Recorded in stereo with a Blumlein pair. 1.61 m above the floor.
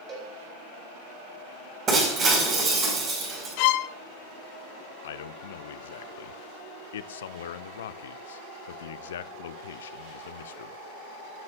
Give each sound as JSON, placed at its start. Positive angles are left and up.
{"t": 0.1, "sound": "a cowbell", "azimuth_deg": -25, "distance_m": 4.0}
{"t": 1.9, "sound": "breaking glass", "azimuth_deg": -25, "distance_m": 5.0}
{"t": 3.6, "sound": "a violin", "azimuth_deg": 45, "distance_m": 0.5}
{"t": 5.0, "sound": "a man speaking", "azimuth_deg": 60, "distance_m": 0.6}